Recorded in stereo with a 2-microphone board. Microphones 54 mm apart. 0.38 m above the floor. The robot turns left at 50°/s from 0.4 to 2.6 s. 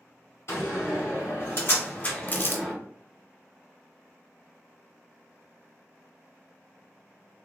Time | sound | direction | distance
0.5 | a door slam | 55° left (ahead or behind) | 1.7 m
2.3 | crumpling | 30° left (ahead or behind) | 0.6 m